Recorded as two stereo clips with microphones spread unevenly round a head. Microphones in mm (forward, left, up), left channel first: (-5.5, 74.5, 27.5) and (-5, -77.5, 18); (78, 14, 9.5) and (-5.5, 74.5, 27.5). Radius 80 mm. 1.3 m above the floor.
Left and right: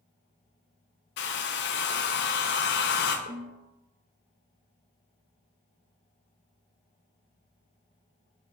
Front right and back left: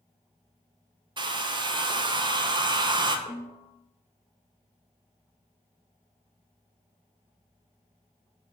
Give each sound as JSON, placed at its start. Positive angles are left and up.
{"t": 1.2, "sound": "a hair dryer", "azimuth_deg": 100, "distance_m": 1.0}
{"t": 3.3, "sound": "a snare drum", "azimuth_deg": -70, "distance_m": 1.8}